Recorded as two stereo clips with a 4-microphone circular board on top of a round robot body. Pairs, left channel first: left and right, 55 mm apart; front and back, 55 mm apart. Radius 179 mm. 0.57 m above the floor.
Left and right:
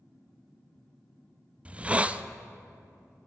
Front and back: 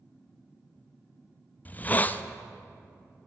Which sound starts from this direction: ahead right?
A hiss, at 1.6 s.